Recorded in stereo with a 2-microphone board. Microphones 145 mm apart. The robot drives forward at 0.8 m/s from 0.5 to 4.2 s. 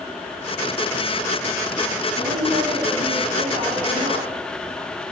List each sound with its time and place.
2.1 s a woman speaking: 70° right (ahead or behind), 6 m; by 4.3 s 80° right, 5.5 m